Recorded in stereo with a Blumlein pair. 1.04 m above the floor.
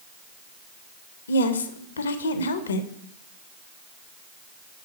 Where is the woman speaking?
70° left, 0.6 m.